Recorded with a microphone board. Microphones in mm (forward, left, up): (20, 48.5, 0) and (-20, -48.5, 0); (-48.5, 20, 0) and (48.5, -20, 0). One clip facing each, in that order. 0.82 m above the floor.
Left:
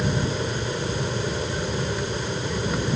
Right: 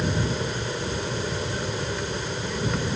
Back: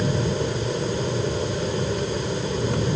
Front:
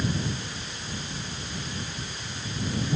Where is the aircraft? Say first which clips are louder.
Left 1 dB, back 7 dB; 150° left.